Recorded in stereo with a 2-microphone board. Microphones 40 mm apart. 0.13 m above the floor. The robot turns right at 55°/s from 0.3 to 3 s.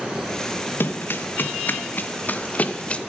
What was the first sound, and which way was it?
Running footsteps, 65° left (ahead or behind).